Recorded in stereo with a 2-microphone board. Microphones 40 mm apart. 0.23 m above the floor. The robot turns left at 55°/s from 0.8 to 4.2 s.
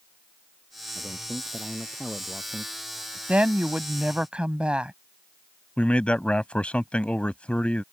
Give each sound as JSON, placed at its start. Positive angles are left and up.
{"t": 0.9, "sound": "a man speaking", "azimuth_deg": 35}
{"t": 3.3, "sound": "a woman speaking", "azimuth_deg": -80}
{"t": 5.8, "sound": "a man speaking", "side_deg": 30}